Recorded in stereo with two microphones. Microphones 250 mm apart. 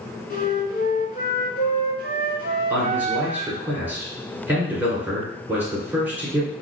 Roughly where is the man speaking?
Centre.